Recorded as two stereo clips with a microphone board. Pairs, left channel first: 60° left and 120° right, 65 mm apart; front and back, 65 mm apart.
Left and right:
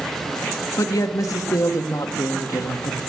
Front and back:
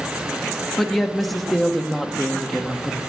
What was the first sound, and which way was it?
A woman speaking, 90° left.